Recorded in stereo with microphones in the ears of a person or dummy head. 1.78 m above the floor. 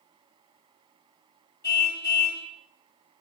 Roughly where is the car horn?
Left.